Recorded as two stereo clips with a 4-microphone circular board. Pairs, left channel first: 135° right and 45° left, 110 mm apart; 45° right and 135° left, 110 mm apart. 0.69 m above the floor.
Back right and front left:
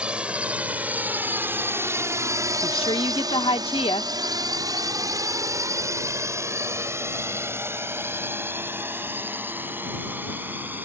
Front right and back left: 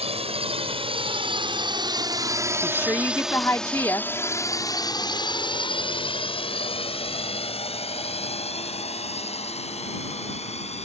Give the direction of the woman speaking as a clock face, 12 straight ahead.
4 o'clock.